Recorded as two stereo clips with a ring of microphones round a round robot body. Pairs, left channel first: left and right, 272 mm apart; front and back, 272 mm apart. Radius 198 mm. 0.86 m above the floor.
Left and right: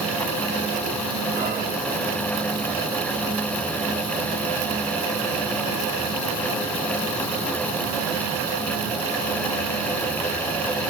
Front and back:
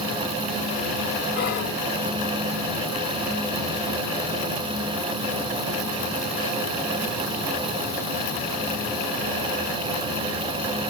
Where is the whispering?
25° right, 1.0 m.